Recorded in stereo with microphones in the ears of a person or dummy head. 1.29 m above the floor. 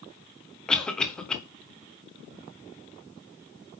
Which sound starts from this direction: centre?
A cough, at 0.7 s.